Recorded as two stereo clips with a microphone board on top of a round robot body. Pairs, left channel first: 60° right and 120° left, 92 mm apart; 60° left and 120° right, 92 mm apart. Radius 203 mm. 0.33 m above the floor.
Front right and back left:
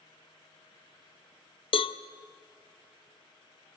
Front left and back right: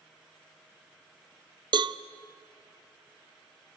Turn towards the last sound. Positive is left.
turn(degrees=-85)